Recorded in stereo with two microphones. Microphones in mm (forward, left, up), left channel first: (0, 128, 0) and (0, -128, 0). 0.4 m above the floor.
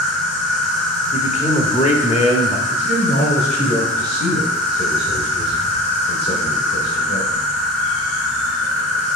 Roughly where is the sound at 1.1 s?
Left.